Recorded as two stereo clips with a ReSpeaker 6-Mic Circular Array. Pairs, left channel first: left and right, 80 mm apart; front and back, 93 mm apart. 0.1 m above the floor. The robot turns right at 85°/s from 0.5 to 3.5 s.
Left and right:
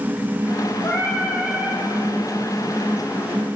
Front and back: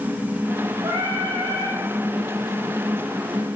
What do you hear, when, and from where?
0.8 s singing: 130° left, 1.6 m; by 1.8 s 145° right, 1.6 m